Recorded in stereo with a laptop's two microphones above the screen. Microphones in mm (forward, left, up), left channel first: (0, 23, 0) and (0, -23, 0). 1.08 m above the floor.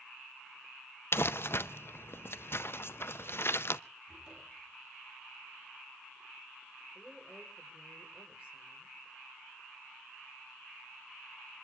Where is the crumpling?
55° left (ahead or behind), 0.6 m.